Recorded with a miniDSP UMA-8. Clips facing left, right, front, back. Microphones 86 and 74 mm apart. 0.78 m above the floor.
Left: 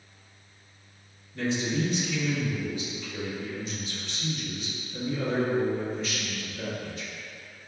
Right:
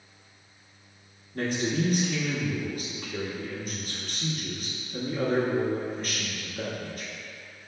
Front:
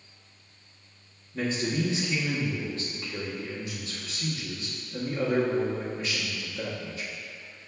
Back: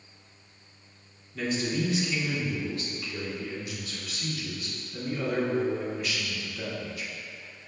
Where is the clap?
I don't hear a clap.